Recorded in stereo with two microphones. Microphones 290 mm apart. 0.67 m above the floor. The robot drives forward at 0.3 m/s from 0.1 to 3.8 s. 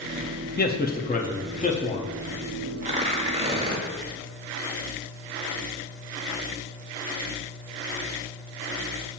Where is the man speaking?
30° left (ahead or behind), 0.7 m; by 2.1 s 20° left (ahead or behind), 0.9 m.